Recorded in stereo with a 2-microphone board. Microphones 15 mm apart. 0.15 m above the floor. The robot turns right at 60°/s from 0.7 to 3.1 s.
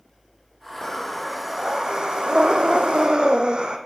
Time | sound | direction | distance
0.8 | breathing | 160° left | 1.1 m